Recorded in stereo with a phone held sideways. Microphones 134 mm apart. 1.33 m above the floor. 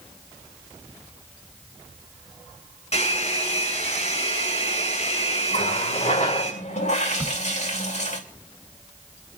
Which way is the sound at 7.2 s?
20° right (ahead or behind).